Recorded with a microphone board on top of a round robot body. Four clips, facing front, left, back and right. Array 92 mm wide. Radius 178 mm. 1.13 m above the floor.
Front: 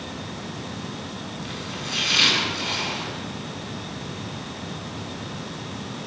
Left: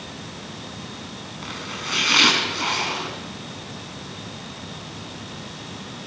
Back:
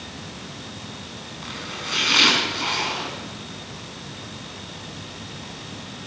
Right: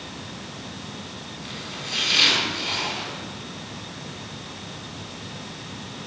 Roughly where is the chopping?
Behind left.